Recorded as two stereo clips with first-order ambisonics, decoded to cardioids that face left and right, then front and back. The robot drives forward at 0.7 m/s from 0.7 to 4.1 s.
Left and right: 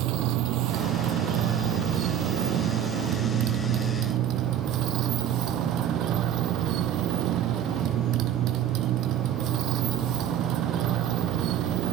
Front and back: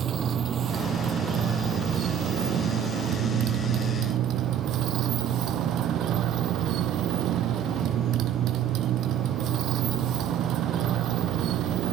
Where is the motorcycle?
120° right; by 11.9 s 135° right.